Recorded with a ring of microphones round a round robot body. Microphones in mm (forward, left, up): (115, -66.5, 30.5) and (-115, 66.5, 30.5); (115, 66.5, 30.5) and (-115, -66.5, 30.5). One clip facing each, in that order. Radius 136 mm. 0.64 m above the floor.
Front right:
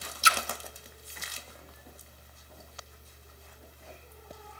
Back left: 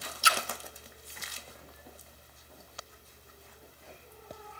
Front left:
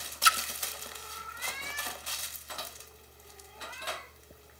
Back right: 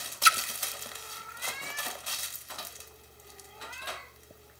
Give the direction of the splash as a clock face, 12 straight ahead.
3 o'clock.